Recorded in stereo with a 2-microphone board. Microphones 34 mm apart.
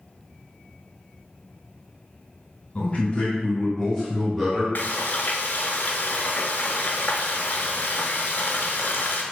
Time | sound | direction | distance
2.8 | a man speaking | 40° left (ahead or behind) | 1.4 m
4.8 | frying | 75° left (ahead or behind) | 0.6 m